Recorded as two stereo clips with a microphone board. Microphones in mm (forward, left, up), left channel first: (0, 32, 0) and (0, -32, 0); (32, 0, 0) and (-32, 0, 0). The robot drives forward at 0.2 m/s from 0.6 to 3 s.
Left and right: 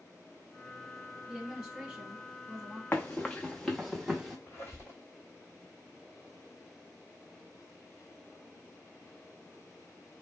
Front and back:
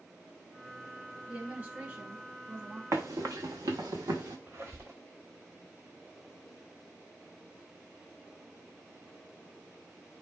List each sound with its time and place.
1.3 s a woman speaking: 150° right, 1.1 m; by 2.8 s 160° right, 1.3 m
2.9 s running footsteps: 145° left, 0.6 m; by 4.4 s 175° right, 1.1 m
4.5 s a squeak: 135° left, 1.4 m